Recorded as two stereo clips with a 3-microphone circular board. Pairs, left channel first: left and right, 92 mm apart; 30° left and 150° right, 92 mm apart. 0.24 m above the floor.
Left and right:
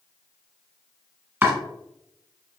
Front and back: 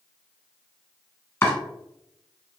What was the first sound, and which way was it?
Chopping, 30° right.